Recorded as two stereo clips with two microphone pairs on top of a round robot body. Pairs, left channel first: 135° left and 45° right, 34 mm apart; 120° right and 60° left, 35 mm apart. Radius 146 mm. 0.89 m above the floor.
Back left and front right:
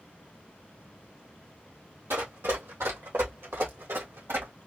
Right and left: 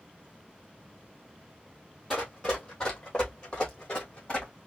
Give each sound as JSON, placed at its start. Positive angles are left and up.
{"t": 2.1, "sound": "running footsteps", "azimuth_deg": -35, "distance_m": 1.7}